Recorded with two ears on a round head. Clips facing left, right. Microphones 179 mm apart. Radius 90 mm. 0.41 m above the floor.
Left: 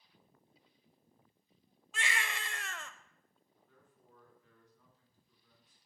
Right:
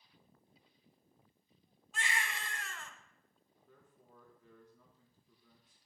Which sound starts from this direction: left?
A baby crying, at 1.9 s.